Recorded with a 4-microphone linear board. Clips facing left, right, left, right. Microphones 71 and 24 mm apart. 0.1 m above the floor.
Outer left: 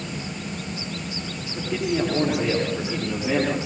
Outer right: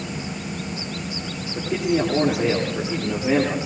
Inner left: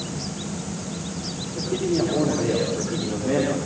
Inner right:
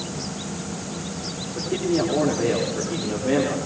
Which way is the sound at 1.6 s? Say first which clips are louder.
Outer right 3 dB, even; 50° right (ahead or behind).